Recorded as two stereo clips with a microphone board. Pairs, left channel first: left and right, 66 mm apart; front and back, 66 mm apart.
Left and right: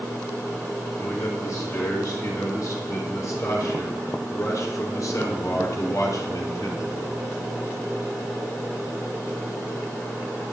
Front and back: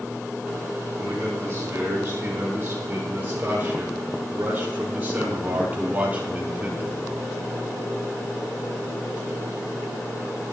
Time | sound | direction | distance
1.0 | a man speaking | 130° left | 8.5 m